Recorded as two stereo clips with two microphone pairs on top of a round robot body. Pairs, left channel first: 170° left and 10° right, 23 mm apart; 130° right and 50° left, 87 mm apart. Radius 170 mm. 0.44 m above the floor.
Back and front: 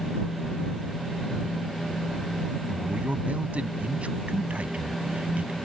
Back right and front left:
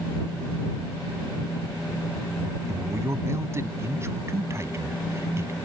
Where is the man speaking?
10° right.